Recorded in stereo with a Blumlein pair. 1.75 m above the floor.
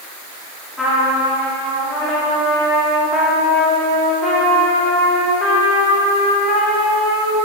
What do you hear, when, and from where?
0.8 s a trumpet: 10° left, 3.5 m